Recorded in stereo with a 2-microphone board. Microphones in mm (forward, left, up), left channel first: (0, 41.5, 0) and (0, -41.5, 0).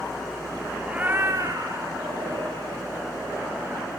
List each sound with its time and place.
0.9 s a cat meowing: 15° right (ahead or behind), 1.2 m; by 2.8 s 75° right (ahead or behind), 3.5 m